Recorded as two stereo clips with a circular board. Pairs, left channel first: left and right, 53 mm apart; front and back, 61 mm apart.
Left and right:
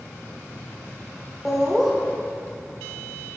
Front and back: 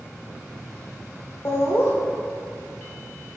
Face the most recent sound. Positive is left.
turn(degrees=-5)